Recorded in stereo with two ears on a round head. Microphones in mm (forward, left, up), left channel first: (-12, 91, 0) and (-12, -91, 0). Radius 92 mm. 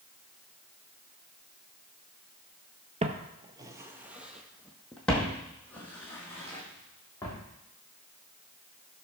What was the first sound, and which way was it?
Footsteps, 30° right (ahead or behind).